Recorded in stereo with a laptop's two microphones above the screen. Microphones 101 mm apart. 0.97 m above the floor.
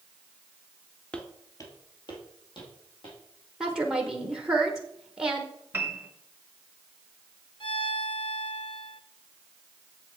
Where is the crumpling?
I don't hear crumpling.